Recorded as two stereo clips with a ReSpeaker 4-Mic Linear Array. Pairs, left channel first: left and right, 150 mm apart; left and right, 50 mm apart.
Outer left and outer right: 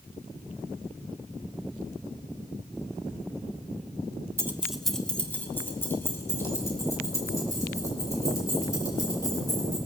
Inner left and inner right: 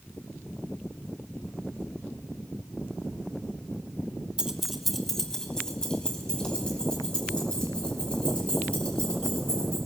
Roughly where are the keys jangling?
Centre.